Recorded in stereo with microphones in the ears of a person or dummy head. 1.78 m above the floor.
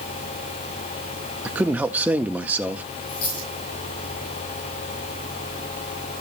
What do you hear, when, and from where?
1.4 s a man speaking: 5° right (ahead or behind), 0.6 m
3.1 s a dropped coin: 70° left (ahead or behind), 8 m